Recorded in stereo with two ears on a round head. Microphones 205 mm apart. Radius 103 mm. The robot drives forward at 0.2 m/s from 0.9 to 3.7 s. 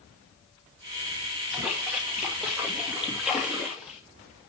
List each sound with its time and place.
1.5 s a splash: 5° right (ahead or behind), 2.5 m